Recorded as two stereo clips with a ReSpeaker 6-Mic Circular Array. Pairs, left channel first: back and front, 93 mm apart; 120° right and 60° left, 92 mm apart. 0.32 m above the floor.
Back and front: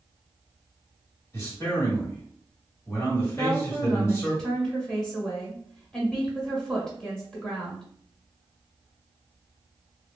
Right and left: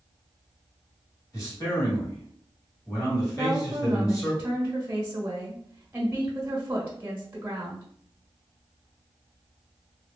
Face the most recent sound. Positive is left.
turn(degrees=105)